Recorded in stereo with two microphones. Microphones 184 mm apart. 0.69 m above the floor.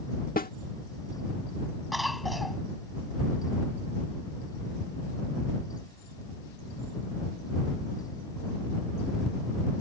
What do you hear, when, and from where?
0.4 s a snare drum: 55° left (ahead or behind)
1.9 s a cough: centre (ahead or behind)